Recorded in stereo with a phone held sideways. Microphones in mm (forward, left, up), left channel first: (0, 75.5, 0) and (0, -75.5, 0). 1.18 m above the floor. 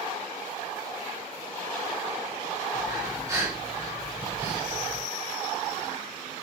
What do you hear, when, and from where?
2.7 s breathing: 25° right (ahead or behind), 1.3 m